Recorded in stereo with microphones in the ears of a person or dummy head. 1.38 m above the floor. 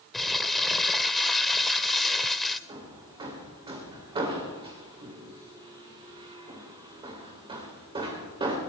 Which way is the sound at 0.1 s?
5° left (ahead or behind).